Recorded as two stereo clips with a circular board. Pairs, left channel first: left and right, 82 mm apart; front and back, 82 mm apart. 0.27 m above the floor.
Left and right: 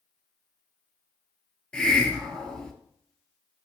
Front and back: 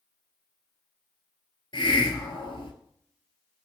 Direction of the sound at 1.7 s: 10° left.